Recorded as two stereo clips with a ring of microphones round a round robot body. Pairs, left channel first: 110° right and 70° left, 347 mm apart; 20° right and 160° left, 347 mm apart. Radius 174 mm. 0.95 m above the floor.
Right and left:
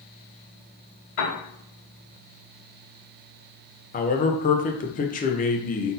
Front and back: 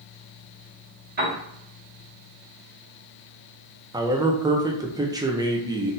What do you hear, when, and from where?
1.2 s a piano: 140° right, 2 m
3.9 s a man speaking: 140° right, 0.6 m